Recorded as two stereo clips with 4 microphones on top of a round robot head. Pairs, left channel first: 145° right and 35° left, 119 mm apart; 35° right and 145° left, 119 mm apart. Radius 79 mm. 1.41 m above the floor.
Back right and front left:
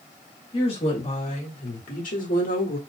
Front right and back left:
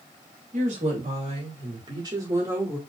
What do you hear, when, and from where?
0.5 s a woman speaking: 170° left, 2.5 m; by 2.8 s 145° right, 2 m